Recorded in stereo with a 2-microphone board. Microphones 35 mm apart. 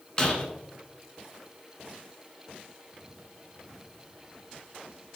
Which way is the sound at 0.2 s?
20° left (ahead or behind).